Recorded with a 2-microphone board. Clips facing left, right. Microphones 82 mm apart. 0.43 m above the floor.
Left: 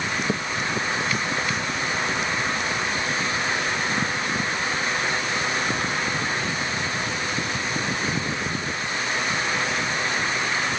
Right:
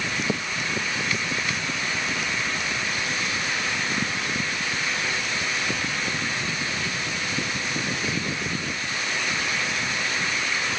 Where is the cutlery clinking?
No cutlery clinking in this recording.